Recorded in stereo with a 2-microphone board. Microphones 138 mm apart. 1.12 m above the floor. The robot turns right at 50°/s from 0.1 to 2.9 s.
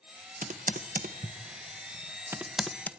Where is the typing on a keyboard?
70° right (ahead or behind), 0.5 m; by 2.9 s 10° left (ahead or behind), 0.5 m.